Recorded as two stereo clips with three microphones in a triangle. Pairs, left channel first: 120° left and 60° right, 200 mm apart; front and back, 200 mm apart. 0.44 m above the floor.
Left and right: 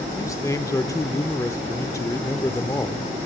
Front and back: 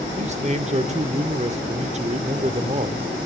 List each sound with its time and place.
0.2 s a man speaking: straight behind, 0.8 m